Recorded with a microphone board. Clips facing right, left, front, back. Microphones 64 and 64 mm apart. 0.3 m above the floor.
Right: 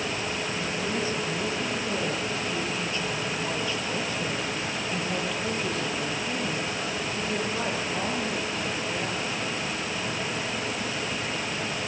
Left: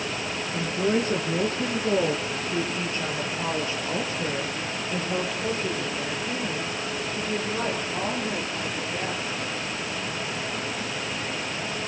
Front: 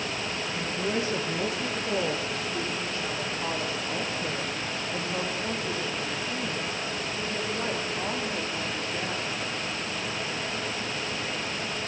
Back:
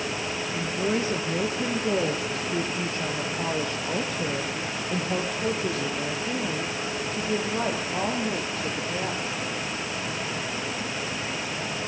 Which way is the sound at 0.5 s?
110° left.